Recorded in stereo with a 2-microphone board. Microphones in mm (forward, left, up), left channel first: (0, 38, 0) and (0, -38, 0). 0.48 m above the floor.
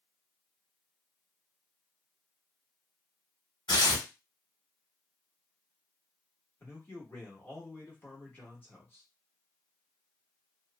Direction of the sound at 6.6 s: 25° left (ahead or behind).